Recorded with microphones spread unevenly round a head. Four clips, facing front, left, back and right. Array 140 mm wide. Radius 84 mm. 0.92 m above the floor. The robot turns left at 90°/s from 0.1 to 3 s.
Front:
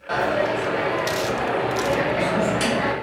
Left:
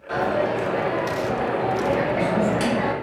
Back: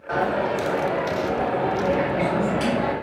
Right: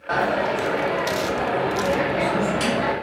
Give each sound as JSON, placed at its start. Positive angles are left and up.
{"t": 0.1, "sound": "a dropped coin", "azimuth_deg": -70, "distance_m": 1.1}